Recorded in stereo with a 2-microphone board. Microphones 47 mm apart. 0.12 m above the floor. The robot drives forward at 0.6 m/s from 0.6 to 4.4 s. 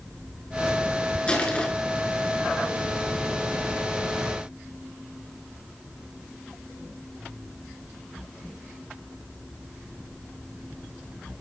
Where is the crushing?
20° left (ahead or behind), 1.6 m; by 1.7 s 25° left (ahead or behind), 1.5 m.